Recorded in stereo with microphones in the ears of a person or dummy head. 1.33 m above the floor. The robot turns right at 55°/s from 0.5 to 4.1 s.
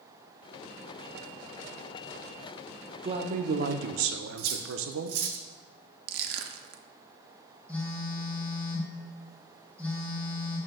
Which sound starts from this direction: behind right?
A man speaking, at 3.0 s.